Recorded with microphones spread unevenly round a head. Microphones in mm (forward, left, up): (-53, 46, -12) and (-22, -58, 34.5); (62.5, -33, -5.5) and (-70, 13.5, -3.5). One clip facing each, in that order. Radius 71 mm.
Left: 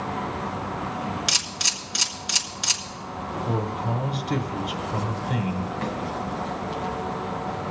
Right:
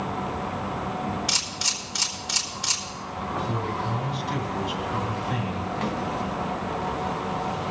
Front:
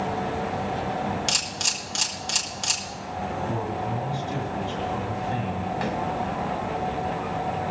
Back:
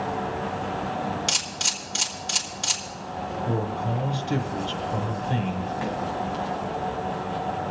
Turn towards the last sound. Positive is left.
turn(degrees=-45)